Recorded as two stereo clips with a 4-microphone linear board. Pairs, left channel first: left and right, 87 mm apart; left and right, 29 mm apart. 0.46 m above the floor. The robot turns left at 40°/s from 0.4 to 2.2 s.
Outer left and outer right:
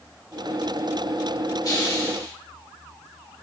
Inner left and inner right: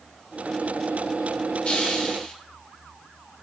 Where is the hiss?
45° left (ahead or behind), 1.0 m; by 2.3 s 30° left (ahead or behind), 1.0 m.